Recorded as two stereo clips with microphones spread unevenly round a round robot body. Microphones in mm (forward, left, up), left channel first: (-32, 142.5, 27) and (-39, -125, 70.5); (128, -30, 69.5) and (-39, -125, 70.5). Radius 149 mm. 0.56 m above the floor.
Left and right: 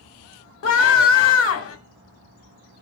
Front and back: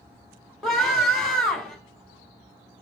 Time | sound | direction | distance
0.6 | a scream | 115° left | 2 m